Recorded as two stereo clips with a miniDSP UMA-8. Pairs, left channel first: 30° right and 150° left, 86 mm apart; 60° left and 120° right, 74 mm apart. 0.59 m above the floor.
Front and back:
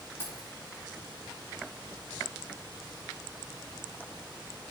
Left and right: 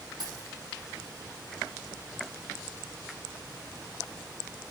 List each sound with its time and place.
0.2 s keys jangling: 95° right, 4.5 m